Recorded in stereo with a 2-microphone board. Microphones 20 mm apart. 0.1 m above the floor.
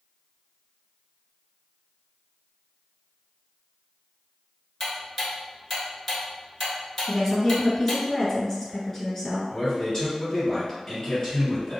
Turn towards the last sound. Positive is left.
turn(degrees=25)  # may be behind; listen again after turning